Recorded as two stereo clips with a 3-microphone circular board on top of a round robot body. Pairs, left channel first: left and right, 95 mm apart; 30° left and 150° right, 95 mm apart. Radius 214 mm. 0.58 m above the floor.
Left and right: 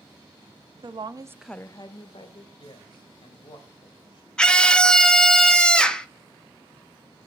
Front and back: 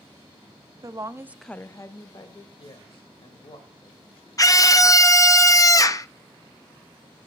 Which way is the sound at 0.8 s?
105° right.